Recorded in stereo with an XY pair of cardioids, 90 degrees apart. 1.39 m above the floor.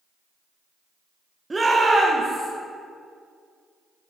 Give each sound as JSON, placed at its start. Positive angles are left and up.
{"t": 1.5, "sound": "a shout", "azimuth_deg": -20, "distance_m": 1.1}